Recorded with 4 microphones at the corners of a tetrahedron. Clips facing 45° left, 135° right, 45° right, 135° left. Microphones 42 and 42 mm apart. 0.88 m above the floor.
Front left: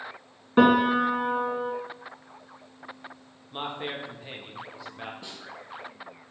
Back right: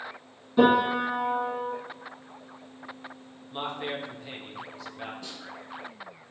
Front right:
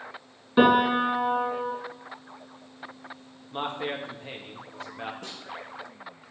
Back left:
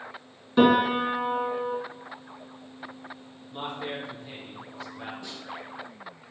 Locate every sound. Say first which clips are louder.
0.6 s a piano: front left 2 dB, front right 1 dB; 30° left, 1.7 m
3.5 s a man speaking: back right 1 dB, front right 3 dB; 25° right, 1.1 m
5.2 s a snare drum: back right 1 dB, even; 25° right, 2 m